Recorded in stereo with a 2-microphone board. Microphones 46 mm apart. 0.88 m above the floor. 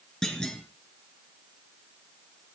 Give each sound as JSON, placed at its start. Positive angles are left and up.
{"t": 0.2, "sound": "a clunk", "side_deg": 15, "distance_m": 3.0}